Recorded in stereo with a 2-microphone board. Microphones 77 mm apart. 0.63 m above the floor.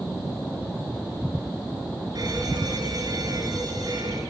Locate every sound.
2.1 s an alarm: 60° right (ahead or behind), 10 m